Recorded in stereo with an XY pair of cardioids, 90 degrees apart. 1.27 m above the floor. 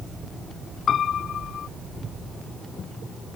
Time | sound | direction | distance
0.9 | a piano | 65° left | ?